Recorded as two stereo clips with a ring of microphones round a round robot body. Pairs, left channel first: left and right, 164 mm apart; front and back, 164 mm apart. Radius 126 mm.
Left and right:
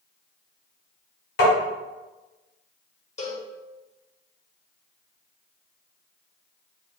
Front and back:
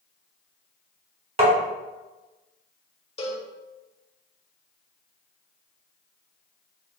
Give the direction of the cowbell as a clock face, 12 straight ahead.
10 o'clock.